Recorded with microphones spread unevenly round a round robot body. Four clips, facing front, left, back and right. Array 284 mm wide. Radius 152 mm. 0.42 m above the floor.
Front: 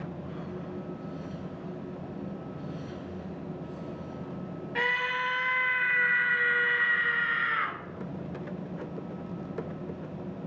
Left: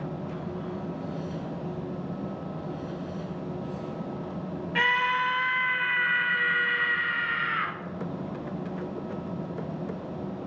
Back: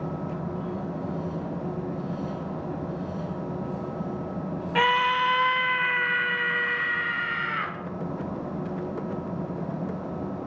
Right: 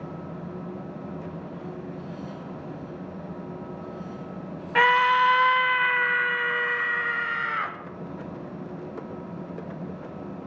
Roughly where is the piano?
No piano in this recording.